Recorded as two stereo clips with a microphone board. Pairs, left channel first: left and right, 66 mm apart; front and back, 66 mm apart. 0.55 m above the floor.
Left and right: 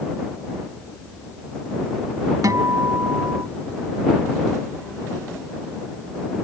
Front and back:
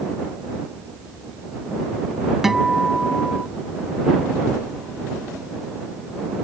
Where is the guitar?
95° right.